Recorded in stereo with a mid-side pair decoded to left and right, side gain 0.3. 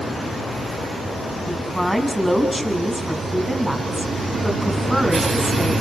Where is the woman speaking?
5° right, 8 m.